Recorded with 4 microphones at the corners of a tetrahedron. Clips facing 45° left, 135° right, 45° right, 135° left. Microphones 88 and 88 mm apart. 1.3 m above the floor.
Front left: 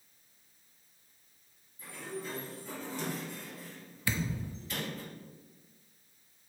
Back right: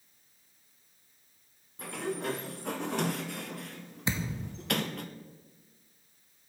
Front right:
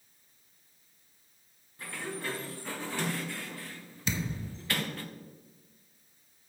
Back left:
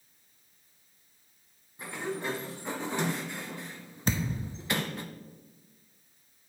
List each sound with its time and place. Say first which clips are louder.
1.8 s a sliding door: back right 7 dB, back left 3 dB; 155° right, 0.6 m
4.1 s a thud: back right 1 dB, back left 3 dB; 165° left, 0.8 m